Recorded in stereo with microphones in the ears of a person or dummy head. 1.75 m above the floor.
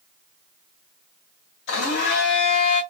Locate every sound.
1.7 s a blender: 60° left (ahead or behind), 0.9 m